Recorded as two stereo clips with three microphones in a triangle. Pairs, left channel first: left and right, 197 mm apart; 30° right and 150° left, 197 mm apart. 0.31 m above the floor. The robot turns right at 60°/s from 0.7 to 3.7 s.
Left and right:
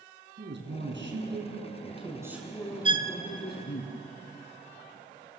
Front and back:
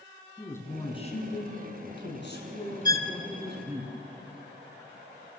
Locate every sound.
0.4 s a man speaking: 105° right, 4 m; by 3.9 s 75° left, 4 m
2.9 s a violin: 40° left, 1.4 m; by 3.1 s 55° left, 1.4 m